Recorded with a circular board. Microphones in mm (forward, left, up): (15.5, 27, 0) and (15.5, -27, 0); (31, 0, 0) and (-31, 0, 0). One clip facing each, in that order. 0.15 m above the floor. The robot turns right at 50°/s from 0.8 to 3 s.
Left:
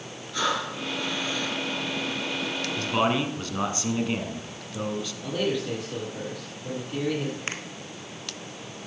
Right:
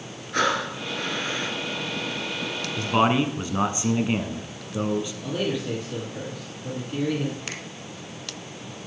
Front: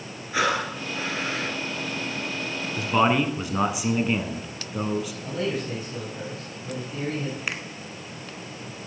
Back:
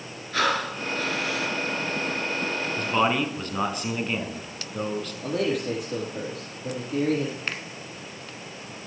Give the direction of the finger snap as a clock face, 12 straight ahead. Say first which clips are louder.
Left 2 dB, front 1 dB; 10 o'clock.